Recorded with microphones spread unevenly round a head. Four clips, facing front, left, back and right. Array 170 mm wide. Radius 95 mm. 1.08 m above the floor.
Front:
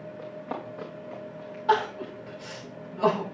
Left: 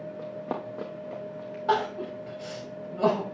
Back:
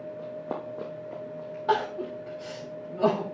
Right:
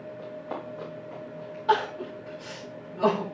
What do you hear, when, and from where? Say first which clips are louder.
0.2 s running footsteps: left 2 dB, even; 125° left, 3 m; by 2.1 s 150° left, 3 m
1.7 s crying: right 1 dB, front 2 dB; 145° left, 6.5 m